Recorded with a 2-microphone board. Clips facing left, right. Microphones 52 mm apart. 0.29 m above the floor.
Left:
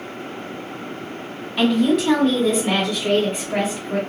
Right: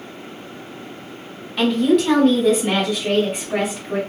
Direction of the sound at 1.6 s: 5° left (ahead or behind).